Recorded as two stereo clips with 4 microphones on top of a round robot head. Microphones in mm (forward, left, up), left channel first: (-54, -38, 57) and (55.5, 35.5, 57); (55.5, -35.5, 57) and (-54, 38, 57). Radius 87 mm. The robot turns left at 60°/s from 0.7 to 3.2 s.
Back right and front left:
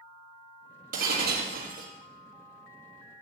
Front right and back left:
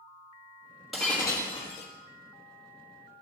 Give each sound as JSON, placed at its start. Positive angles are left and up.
{"t": 0.9, "sound": "breaking glass", "azimuth_deg": 55, "distance_m": 4.0}